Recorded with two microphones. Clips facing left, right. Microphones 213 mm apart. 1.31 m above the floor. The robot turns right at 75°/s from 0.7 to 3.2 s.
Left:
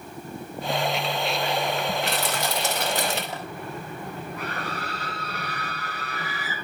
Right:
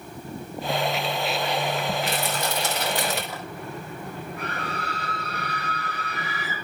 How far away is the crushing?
About 3 m.